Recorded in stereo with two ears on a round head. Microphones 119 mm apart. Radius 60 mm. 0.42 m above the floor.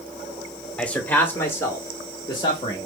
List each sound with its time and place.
0.8 s a man speaking: 5° left (ahead or behind), 1.0 m; by 2.9 s 40° left (ahead or behind), 1.3 m